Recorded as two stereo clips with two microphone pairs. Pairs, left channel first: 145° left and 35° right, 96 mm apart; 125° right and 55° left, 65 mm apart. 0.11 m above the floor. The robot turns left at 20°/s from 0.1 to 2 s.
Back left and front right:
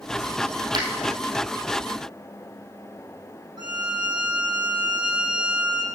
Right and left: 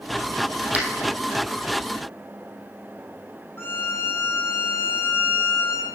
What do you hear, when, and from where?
0.7 s a finger snap: straight ahead, 3 m
3.6 s a violin: 70° right, 4.5 m